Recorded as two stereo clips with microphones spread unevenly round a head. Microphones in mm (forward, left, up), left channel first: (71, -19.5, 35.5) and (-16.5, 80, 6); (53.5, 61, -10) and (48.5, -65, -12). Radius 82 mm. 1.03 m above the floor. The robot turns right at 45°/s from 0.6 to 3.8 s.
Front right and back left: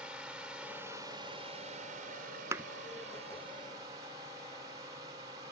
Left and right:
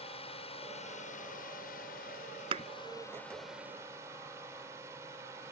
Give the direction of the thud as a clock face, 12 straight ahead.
5 o'clock.